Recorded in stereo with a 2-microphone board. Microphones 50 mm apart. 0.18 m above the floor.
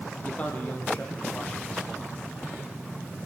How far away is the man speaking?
About 6 m.